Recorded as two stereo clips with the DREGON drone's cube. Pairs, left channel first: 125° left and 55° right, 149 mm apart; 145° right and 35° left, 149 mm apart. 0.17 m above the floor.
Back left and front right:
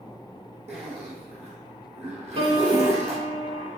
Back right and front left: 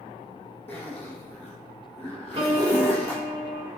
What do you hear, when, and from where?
0.7 s a zipper: 100° right, 1.5 m
2.4 s a piano: 10° right, 0.7 m